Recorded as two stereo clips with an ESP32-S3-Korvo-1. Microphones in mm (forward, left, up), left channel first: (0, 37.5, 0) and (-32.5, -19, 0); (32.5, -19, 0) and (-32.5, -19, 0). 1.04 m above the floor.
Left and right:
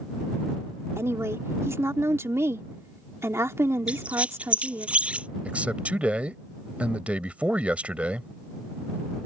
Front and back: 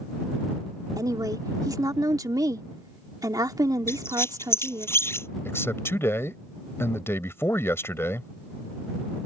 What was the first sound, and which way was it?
A woman speaking, 165° right.